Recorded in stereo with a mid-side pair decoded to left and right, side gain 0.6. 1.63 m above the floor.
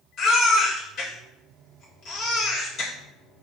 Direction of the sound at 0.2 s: 50° left.